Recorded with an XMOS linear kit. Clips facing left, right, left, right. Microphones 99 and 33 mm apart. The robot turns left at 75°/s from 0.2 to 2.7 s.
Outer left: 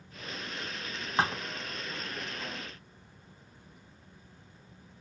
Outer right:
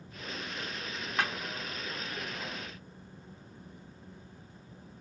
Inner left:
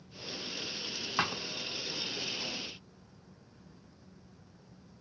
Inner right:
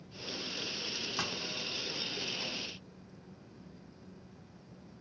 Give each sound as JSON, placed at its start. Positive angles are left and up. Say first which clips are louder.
{"t": 1.2, "sound": "a thud", "louder": "outer left 4 dB, inner left 7 dB", "side_deg": 30}